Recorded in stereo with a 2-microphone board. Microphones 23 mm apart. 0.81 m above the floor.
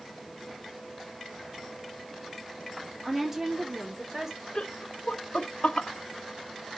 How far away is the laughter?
About 0.8 m.